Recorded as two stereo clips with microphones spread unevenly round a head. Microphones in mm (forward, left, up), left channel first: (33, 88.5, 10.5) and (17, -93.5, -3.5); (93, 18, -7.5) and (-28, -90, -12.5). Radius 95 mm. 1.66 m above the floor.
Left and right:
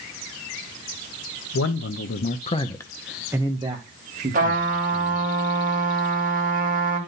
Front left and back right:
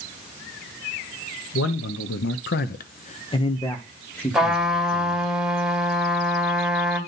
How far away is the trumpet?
About 3 m.